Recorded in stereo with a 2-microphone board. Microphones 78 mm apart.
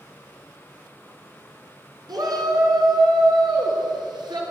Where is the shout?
65° right (ahead or behind), 3 m; by 4.4 s 75° right (ahead or behind), 3.5 m.